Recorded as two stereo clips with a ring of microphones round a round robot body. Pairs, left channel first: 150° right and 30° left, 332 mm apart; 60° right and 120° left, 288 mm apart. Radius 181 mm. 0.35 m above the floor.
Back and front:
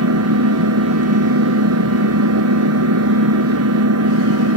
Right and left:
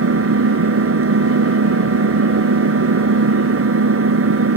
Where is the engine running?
75° left.